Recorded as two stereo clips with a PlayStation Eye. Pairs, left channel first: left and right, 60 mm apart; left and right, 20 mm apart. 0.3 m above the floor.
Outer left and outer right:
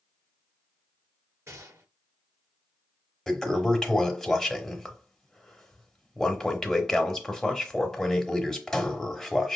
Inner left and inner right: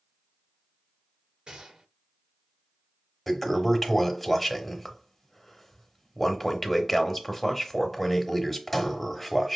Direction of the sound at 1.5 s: 45° right (ahead or behind).